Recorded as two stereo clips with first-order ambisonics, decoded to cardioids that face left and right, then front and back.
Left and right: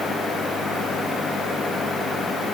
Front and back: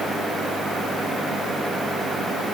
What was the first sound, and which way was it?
Only background noise.